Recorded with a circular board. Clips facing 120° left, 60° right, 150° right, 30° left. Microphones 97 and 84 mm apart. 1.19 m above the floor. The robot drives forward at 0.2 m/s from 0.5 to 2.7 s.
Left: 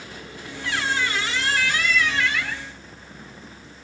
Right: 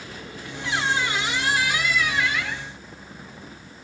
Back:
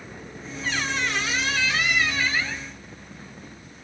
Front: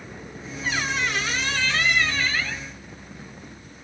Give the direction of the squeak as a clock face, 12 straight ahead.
1 o'clock.